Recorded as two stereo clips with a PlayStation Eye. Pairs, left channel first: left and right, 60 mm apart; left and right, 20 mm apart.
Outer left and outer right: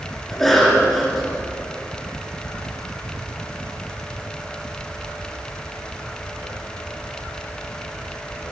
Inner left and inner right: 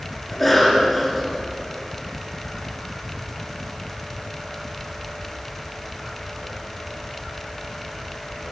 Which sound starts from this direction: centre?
A cough, at 0.3 s.